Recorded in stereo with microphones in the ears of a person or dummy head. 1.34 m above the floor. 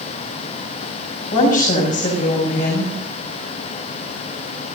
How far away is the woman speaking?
About 6 m.